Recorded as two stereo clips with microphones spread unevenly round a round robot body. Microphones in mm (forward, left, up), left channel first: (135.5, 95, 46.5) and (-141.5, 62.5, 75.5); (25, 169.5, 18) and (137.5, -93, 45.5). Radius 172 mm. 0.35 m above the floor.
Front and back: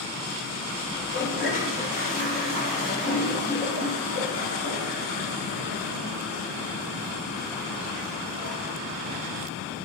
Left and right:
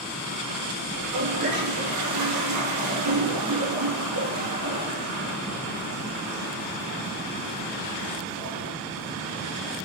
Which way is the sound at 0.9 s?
60° right.